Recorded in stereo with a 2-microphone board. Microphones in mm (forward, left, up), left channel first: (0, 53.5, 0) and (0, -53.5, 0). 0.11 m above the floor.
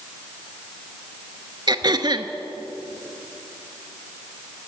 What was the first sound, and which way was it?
Throat clearing, 45° right (ahead or behind).